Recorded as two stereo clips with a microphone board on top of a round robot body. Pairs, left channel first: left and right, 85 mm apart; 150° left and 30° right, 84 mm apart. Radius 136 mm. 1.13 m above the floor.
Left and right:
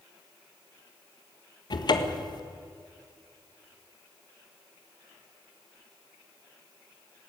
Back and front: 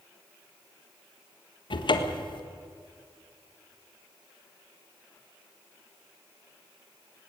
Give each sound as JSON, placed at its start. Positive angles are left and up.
{"t": 1.7, "sound": "a cupboard door", "azimuth_deg": 125, "distance_m": 1.6}